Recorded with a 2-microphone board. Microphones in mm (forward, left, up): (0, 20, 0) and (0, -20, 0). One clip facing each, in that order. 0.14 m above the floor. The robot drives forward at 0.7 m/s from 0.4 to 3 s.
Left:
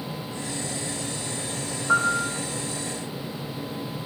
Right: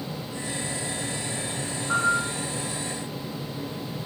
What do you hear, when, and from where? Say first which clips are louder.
1.9 s a piano: left 2 dB; 30° left (ahead or behind), 10 m